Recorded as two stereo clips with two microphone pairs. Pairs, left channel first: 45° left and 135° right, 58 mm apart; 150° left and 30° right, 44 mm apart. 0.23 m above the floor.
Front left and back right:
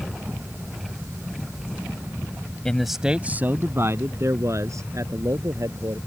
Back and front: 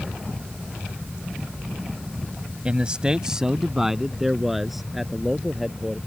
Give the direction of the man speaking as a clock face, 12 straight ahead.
1 o'clock.